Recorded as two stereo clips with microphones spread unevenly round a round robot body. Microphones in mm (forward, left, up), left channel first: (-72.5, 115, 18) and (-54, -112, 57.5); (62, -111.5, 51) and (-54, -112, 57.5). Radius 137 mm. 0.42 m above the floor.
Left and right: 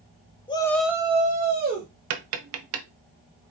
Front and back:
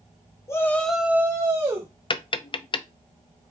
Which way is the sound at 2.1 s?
50° right.